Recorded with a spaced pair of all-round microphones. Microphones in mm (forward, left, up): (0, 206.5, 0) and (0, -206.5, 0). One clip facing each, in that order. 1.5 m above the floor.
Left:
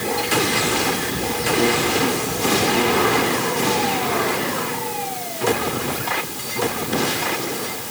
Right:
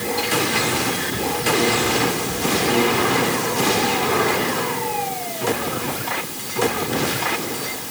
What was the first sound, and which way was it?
Only background noise.